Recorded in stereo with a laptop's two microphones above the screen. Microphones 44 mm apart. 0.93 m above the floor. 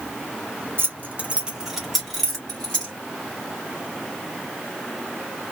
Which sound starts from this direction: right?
Keys jangling, at 0.8 s.